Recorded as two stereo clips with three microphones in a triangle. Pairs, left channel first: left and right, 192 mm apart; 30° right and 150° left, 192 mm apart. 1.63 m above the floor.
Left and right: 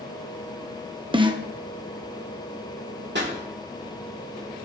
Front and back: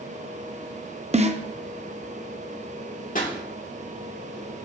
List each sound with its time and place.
1.1 s a snare drum: 150° right, 0.9 m
3.1 s a pop: 75° right, 2.5 m